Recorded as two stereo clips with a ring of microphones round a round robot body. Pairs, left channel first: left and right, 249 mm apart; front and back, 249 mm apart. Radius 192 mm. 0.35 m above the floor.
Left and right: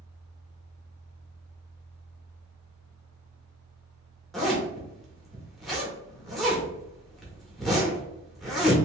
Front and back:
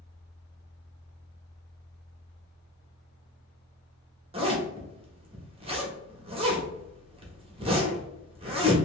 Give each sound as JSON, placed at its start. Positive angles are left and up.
{"t": 4.3, "sound": "a zipper", "azimuth_deg": 180, "distance_m": 1.0}